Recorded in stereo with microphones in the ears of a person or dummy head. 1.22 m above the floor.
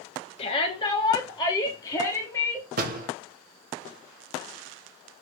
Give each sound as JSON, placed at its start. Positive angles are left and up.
{"t": 0.4, "sound": "a shout", "side_deg": 30, "distance_m": 2.5}
{"t": 2.8, "sound": "a door slam", "side_deg": -50, "distance_m": 1.3}